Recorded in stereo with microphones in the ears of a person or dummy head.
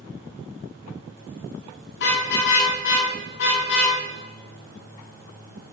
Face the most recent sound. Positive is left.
turn(degrees=70)  # may be behind; listen again after turning